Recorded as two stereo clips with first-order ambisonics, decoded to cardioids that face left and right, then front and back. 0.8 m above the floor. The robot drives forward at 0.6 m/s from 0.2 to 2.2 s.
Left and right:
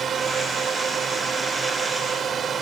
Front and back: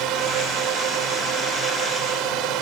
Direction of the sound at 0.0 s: 150° right.